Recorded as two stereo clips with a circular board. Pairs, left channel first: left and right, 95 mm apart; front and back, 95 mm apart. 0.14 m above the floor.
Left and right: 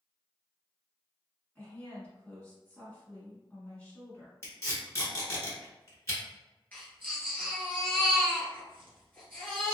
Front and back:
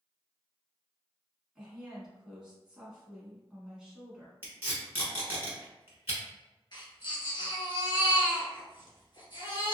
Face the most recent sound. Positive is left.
turn(degrees=20)